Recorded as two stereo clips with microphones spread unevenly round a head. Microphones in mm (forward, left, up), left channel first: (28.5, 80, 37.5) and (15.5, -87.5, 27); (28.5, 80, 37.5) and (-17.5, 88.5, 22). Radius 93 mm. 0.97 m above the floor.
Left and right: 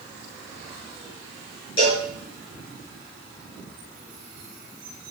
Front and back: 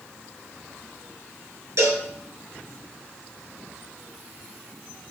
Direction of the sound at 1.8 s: 140° left.